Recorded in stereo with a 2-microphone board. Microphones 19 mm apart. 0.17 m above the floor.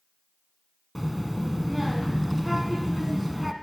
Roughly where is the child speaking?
Centre.